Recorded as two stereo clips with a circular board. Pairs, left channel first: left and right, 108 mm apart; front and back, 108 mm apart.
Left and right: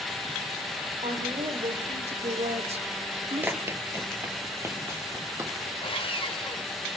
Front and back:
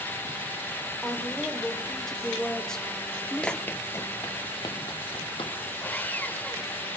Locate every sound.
1.0 s a woman speaking: 85° right, 4.5 m; by 3.6 s 80° right, 3 m
3.4 s running footsteps: 65° right, 1.3 m; by 5.6 s 30° right, 3 m
5.8 s sawing: 70° left, 1.6 m